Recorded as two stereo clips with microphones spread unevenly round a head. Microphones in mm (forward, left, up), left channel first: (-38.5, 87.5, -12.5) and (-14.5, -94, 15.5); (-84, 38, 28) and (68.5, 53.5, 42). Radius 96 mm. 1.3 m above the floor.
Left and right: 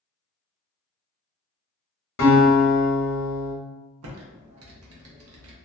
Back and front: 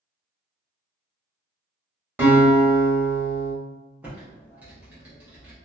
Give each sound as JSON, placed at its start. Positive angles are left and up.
{"t": 2.2, "sound": "a guitar", "azimuth_deg": 80, "distance_m": 1.0}
{"t": 4.0, "sound": "typing on a keyboard", "azimuth_deg": -75, "distance_m": 0.6}